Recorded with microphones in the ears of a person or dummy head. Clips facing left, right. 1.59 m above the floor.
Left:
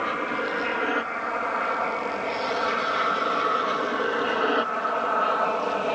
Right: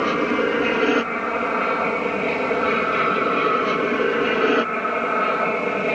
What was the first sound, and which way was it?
An aircraft, 50° right (ahead or behind).